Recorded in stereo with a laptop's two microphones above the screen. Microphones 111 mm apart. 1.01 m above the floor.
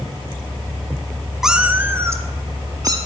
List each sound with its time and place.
1.4 s a cat meowing: 5° right (ahead or behind), 0.6 m; by 3.0 s 40° right (ahead or behind), 1.4 m